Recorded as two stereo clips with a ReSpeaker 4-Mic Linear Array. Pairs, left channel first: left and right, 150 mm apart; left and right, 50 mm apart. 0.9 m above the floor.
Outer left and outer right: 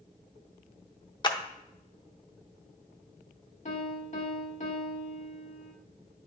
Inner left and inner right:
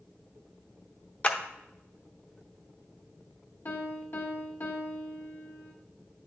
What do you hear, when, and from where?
1.2 s a clap: 30° left (ahead or behind), 0.7 m
3.6 s a piano: 55° left (ahead or behind), 1.2 m